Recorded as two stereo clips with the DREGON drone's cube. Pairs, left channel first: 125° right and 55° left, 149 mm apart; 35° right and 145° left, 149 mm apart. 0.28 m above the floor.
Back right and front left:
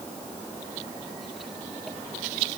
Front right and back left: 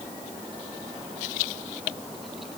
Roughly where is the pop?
I don't hear a pop.